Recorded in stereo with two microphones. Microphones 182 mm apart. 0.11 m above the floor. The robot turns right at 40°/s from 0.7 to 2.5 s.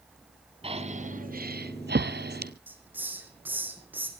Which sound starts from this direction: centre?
A hiss, at 2.7 s.